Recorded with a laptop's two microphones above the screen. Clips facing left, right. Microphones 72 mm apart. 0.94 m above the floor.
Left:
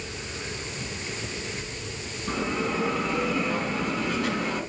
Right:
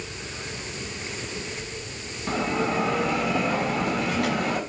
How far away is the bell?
About 3 m.